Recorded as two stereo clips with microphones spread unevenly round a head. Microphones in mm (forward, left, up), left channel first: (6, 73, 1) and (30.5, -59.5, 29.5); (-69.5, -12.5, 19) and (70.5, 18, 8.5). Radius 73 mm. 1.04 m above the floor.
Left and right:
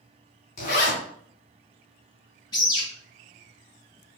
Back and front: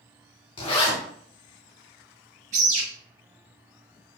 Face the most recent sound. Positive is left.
turn(degrees=45)